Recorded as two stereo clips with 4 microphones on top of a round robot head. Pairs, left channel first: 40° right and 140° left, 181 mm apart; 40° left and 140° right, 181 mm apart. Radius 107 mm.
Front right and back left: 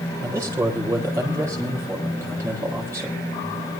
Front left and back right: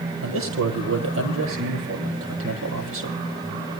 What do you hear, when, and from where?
0.2 s a man speaking: 145° right, 9 m